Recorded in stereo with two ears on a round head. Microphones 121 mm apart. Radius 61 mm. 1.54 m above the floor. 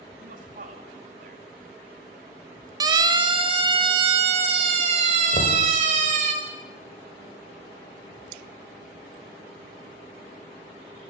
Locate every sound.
0.2 s a man speaking: 70° right (ahead or behind), 4 m
2.8 s a siren: 25° right (ahead or behind), 2.5 m; by 6.3 s 55° right (ahead or behind), 4.5 m
5.3 s knocking: 55° left (ahead or behind), 5 m